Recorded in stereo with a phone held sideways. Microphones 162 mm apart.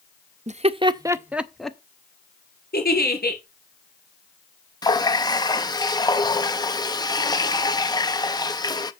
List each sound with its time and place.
0.5 s laughter: 45° right (ahead or behind), 0.6 m; by 1.8 s 5° left (ahead or behind), 0.8 m
2.7 s a giggle: 80° left, 2.5 m
4.8 s a running tap: 25° left (ahead or behind), 0.5 m